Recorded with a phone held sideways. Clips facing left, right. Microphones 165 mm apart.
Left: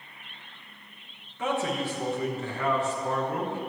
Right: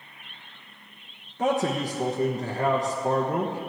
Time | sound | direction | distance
1.4 | a man speaking | 40° right (ahead or behind) | 1.1 m